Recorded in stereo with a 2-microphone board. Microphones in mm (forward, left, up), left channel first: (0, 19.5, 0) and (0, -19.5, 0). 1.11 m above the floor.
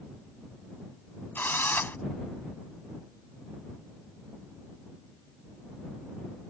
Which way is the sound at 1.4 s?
55° left (ahead or behind).